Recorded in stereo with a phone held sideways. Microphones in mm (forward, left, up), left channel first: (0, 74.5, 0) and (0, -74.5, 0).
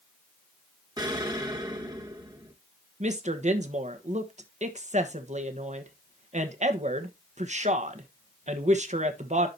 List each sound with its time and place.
1.0 s an explosion: 30° right (ahead or behind), 1.3 m
3.0 s a woman speaking: 50° right (ahead or behind), 1.1 m